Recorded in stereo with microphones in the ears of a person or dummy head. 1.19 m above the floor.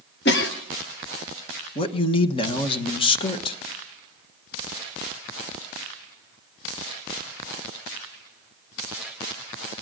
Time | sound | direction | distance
0.2 | a cough | 55° left (ahead or behind) | 1.0 m
1.8 | a man speaking | 30° left (ahead or behind) | 1.1 m